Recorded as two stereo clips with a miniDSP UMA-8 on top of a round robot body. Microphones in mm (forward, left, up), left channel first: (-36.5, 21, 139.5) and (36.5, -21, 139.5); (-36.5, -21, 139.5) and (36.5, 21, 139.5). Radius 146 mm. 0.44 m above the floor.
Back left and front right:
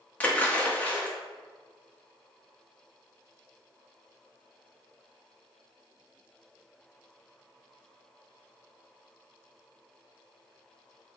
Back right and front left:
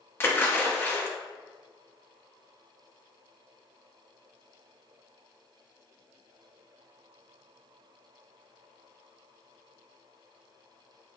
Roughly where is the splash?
Behind.